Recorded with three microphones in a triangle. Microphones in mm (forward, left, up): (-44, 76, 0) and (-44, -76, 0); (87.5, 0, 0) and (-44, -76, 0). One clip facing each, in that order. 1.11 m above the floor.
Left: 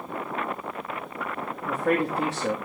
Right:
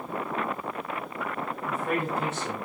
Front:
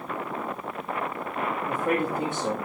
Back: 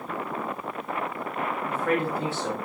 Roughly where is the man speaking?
Left.